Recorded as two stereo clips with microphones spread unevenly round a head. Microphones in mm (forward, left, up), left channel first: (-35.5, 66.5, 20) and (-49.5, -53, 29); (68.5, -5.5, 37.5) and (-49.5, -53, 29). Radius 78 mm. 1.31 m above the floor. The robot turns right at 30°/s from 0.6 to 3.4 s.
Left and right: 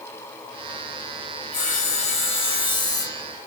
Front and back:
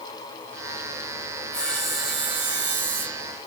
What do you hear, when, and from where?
1.5 s sawing: 100° left, 3 m; by 3.2 s 150° left, 3 m